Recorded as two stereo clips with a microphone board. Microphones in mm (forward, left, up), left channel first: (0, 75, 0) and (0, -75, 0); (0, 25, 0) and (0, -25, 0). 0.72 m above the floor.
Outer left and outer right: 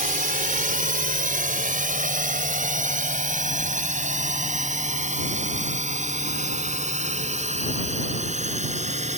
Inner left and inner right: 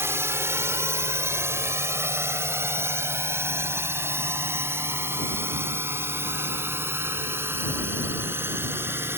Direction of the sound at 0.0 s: 60° right (ahead or behind).